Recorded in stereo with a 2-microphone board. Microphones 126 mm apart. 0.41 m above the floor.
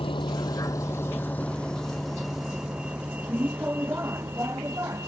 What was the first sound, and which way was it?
A vehicle, 45° left (ahead or behind).